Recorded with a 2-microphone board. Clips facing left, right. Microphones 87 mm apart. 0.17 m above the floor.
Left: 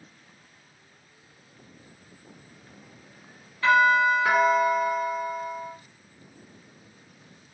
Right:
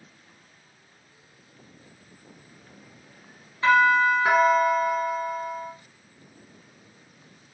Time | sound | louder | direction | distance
3.6 | a doorbell | right 1 dB | 20° right (ahead or behind) | 1.8 m